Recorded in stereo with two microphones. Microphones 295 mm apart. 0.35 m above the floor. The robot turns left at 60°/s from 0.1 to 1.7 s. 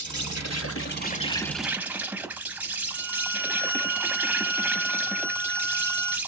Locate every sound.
0.0 s an insect: 90° left, 0.9 m; by 6.3 s 5° right, 0.9 m
2.9 s a violin: 5° left (ahead or behind), 1.3 m